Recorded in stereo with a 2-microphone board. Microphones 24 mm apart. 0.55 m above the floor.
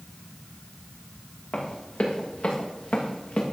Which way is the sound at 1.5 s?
80° left.